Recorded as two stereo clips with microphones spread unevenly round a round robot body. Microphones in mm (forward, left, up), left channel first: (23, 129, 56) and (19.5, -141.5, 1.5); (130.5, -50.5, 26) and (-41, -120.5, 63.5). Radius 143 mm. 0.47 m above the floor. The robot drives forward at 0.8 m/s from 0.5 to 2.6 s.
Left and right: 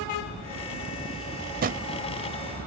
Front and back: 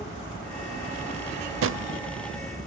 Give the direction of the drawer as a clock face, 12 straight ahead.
5 o'clock.